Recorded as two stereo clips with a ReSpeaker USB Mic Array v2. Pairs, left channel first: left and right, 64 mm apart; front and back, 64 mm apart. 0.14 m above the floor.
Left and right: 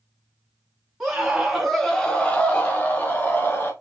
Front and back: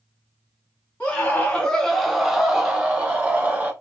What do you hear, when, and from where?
1.0 s a scream: 25° right, 1.2 m; by 3.7 s 130° left, 1.6 m